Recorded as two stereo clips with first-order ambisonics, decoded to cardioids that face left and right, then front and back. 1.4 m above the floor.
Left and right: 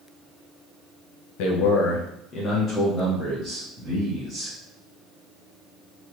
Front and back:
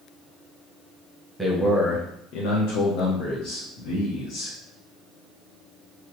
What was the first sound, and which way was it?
A man speaking, 90° left.